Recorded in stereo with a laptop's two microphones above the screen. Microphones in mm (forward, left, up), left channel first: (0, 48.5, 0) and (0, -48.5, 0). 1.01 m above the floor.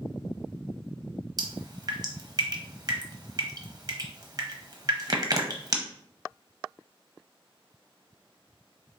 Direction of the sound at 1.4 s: 40° right (ahead or behind).